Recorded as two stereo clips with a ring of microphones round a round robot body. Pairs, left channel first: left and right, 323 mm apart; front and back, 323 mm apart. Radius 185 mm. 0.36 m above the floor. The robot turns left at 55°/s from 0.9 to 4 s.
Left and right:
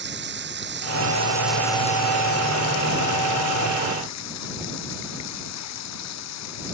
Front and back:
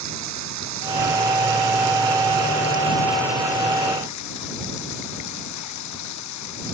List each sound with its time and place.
0.0 s running water: 145° right; by 6.7 s 45° left